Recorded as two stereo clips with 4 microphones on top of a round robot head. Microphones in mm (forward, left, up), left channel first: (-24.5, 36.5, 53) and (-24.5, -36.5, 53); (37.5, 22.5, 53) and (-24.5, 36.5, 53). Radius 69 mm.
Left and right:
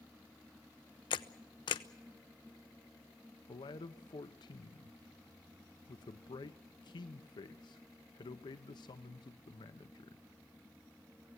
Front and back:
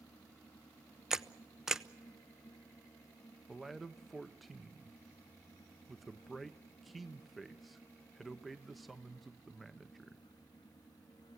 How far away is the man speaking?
About 0.9 m.